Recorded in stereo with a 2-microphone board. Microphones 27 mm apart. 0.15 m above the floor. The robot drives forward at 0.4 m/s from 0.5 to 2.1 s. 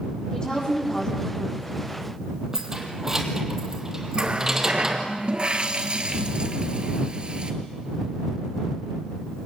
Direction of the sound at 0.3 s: 30° left (ahead or behind).